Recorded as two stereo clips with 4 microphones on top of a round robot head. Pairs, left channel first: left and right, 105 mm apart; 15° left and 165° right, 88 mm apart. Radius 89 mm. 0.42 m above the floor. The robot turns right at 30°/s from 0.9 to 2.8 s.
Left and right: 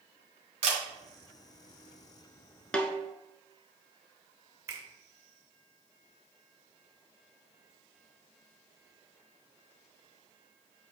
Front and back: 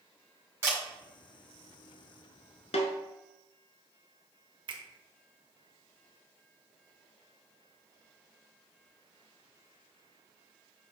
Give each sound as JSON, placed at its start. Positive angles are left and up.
{"t": 0.6, "sound": "a camera shutter", "azimuth_deg": -105, "distance_m": 2.5}
{"t": 2.7, "sound": "a snare drum", "azimuth_deg": 10, "distance_m": 0.8}
{"t": 4.7, "sound": "a finger snap", "azimuth_deg": -155, "distance_m": 1.1}